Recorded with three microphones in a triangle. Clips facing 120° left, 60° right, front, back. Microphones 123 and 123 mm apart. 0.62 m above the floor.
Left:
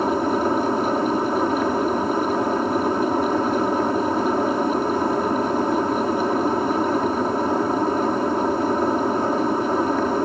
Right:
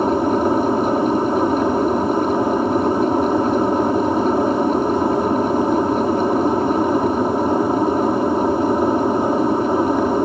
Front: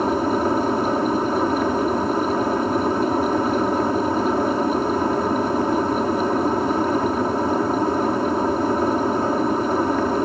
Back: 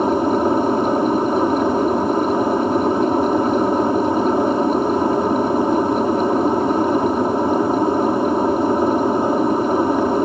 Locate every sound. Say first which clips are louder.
0.0 s an aircraft: right 4 dB, back 3 dB; 120° right